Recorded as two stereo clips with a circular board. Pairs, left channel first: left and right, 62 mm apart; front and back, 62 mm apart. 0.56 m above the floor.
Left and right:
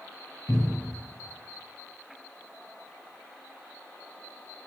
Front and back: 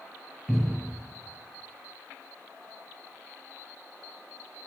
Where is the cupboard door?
80° left, 1.8 m.